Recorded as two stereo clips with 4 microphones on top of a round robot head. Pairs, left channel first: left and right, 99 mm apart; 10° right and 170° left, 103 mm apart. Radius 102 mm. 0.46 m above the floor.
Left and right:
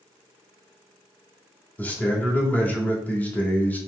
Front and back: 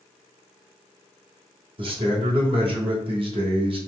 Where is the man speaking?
160° left, 1.8 m.